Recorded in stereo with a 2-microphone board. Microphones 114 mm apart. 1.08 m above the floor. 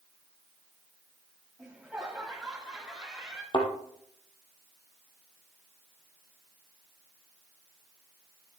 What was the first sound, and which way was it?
Laughter, 5° right (ahead or behind).